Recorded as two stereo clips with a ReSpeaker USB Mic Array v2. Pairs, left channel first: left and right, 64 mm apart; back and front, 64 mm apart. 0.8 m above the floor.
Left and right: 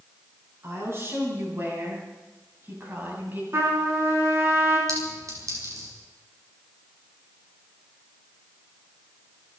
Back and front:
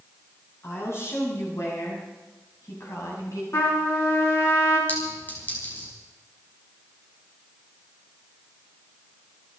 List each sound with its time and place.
0.6 s a woman speaking: 140° right, 8 m; by 3.4 s 150° right, 6.5 m
3.5 s a trumpet: 140° right, 5.5 m
4.9 s a clink: 120° right, 5.5 m